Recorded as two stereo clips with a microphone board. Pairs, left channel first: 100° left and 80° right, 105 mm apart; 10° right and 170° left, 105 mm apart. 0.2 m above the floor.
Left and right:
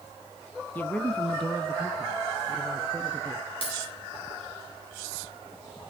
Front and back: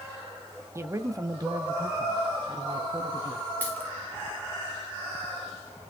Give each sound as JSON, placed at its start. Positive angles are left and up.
{"t": 0.8, "sound": "a man speaking", "azimuth_deg": 150, "distance_m": 1.2}
{"t": 3.6, "sound": "a dropped coin", "azimuth_deg": 65, "distance_m": 7.5}